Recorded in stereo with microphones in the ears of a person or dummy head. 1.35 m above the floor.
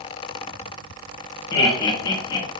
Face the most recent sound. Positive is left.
turn(degrees=25)  # may be behind; listen again after turning